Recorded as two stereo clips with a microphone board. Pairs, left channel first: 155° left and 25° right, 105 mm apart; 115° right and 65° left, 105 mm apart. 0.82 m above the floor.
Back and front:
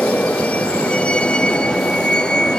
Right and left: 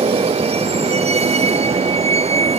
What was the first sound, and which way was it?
A vehicle, 80° left.